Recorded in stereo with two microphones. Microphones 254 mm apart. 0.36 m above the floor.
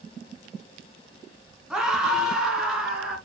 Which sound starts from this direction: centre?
A scream, at 1.7 s.